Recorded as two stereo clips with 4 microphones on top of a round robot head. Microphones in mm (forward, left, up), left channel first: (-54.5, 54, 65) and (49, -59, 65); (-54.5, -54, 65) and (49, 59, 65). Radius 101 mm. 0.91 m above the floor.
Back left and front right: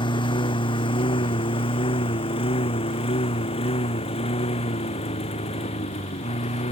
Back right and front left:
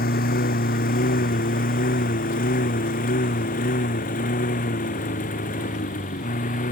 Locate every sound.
0.0 s a lawn mower: 165° right; by 6.7 s 175° right